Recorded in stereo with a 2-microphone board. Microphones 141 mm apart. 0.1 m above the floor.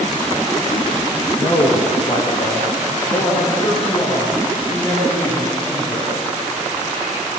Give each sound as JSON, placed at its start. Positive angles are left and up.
{"t": 1.4, "sound": "a man speaking", "side_deg": 30, "distance_m": 5.0}